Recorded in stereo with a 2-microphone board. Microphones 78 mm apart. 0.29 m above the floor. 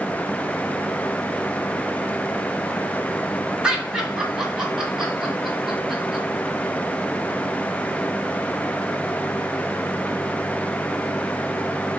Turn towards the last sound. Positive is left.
turn(degrees=-5)  # may be behind; listen again after turning